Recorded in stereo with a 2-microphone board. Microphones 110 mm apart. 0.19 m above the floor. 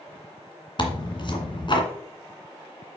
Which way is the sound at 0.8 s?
45° left (ahead or behind).